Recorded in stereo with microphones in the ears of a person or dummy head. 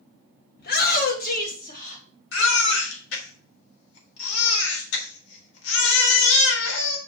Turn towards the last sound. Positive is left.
turn(degrees=80)